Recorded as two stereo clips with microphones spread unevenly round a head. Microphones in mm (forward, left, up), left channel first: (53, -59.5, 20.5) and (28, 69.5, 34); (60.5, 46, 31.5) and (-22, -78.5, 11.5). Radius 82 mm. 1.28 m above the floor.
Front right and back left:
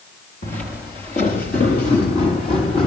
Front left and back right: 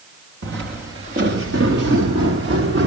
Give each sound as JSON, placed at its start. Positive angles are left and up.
{"t": 0.4, "sound": "footsteps", "azimuth_deg": -120, "distance_m": 7.5}